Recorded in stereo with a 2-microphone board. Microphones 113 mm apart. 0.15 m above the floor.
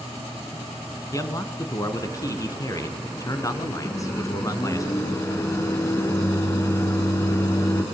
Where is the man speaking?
30° left (ahead or behind), 1.8 m.